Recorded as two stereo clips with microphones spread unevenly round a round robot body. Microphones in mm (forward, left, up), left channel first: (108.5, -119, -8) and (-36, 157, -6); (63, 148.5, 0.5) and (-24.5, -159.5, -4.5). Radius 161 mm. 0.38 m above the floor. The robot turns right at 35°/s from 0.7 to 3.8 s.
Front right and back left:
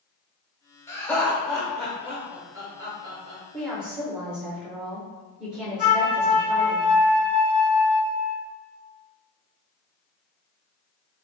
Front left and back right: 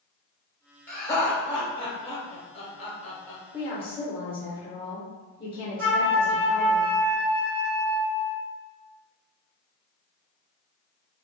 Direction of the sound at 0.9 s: Straight ahead.